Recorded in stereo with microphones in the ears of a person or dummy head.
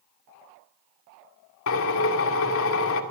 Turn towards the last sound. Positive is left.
turn(degrees=70)  # may be behind; listen again after turning